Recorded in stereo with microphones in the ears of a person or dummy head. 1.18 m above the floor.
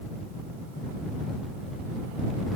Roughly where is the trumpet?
No trumpet in this recording.